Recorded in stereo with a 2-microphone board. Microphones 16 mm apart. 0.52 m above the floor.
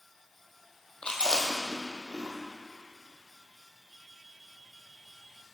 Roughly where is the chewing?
Left.